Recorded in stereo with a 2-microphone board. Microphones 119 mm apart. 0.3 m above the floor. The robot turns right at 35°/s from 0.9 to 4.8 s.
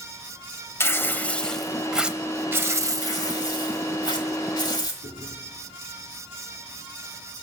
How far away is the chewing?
About 3.5 m.